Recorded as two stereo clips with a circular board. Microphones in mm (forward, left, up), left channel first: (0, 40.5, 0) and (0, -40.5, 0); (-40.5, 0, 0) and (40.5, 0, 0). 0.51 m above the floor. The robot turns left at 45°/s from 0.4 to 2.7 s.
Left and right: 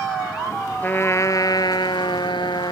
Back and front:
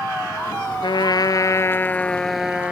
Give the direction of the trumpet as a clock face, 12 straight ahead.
7 o'clock.